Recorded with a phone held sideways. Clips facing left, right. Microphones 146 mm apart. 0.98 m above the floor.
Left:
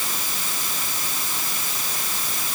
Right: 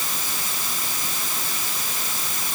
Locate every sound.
Only background noise.